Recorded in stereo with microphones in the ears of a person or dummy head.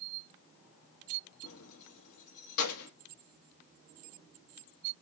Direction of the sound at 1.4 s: 55° left (ahead or behind).